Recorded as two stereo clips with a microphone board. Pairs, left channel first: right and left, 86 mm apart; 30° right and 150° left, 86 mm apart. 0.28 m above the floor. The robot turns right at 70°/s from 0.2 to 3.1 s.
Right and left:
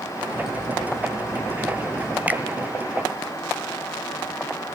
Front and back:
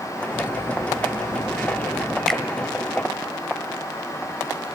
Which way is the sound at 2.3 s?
50° left.